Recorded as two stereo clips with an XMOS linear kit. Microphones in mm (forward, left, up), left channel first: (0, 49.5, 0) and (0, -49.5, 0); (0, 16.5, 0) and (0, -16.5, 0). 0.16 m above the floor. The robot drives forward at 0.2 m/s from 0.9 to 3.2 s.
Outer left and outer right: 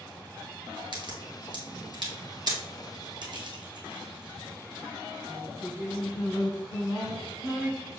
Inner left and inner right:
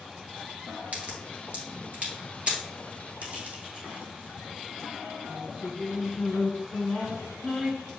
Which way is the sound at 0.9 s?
55° right (ahead or behind).